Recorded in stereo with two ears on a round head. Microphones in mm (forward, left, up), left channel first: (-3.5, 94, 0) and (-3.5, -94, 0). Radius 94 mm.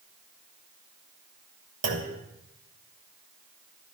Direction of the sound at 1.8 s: 60° right (ahead or behind).